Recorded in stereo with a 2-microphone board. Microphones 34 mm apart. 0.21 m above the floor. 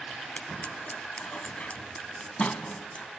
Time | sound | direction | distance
0.4 | scissors | 40° left (ahead or behind) | 1.1 m